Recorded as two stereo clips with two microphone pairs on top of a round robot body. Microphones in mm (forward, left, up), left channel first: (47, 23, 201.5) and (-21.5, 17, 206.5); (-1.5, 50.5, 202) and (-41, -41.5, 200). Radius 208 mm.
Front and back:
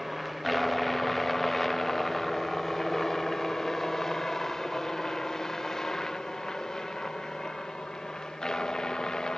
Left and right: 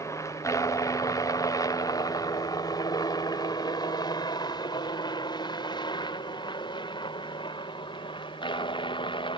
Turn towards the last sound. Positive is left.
turn(degrees=80)